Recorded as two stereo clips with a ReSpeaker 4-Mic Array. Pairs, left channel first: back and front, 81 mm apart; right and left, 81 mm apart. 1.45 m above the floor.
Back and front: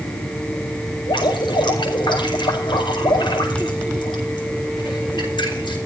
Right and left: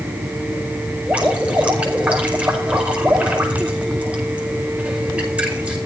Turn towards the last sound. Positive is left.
turn(degrees=165)